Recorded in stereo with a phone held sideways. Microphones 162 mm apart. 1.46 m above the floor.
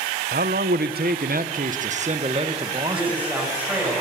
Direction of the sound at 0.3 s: 80° right.